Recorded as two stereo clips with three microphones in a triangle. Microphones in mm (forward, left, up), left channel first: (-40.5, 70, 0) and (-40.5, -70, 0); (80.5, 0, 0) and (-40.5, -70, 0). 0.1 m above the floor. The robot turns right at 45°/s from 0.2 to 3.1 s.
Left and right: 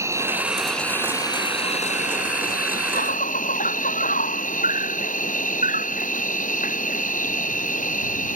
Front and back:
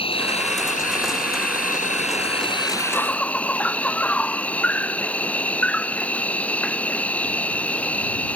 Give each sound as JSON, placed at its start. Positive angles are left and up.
{"t": 0.0, "sound": "an insect", "azimuth_deg": -20}